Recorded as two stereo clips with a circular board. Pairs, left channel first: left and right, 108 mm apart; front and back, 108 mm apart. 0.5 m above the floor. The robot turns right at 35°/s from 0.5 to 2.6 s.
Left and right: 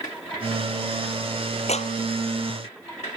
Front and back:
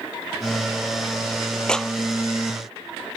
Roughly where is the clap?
Left.